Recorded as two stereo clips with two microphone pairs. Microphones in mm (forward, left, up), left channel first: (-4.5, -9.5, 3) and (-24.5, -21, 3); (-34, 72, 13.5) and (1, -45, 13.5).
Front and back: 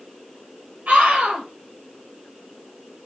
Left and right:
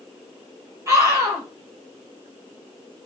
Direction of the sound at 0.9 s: 140° right.